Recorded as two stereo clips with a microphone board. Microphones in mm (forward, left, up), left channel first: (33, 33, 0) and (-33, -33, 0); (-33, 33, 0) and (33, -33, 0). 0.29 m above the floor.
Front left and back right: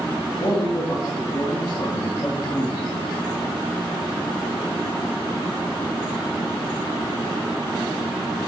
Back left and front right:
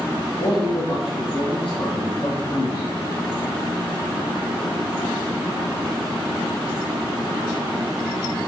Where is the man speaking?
100° left, 5 m; by 3.0 s 80° left, 6.5 m.